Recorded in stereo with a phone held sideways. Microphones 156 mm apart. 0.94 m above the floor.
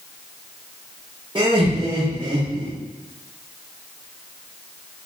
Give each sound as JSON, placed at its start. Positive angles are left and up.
{"t": 1.4, "sound": "laughter", "side_deg": -30, "distance_m": 1.0}